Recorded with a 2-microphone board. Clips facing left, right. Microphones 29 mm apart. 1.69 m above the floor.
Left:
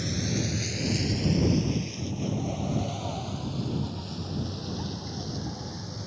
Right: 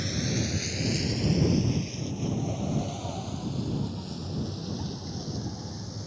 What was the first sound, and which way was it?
A vehicle, 5° right (ahead or behind).